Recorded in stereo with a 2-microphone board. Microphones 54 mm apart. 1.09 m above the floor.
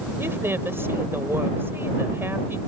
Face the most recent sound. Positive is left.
turn(degrees=-50)  # may be behind; listen again after turning